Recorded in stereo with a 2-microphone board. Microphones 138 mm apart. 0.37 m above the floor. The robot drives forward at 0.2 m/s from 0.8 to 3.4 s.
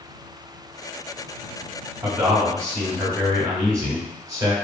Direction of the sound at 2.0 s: 25° right (ahead or behind).